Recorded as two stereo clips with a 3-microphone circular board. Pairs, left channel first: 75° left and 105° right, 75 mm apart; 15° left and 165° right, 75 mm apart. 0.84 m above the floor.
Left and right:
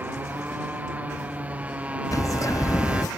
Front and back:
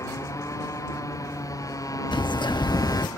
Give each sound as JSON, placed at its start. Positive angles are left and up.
{"t": 0.0, "sound": "a motorcycle", "azimuth_deg": -35}
{"t": 2.1, "sound": "a bird", "azimuth_deg": 30}